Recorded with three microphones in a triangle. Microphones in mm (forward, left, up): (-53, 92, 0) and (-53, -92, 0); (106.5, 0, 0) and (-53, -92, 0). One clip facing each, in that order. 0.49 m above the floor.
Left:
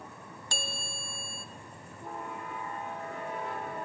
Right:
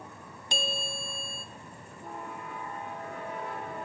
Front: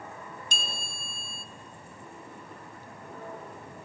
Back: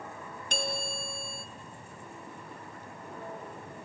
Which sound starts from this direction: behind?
A bell, at 0.5 s.